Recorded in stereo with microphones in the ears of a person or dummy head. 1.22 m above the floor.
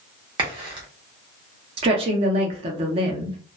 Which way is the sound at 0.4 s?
25° right (ahead or behind).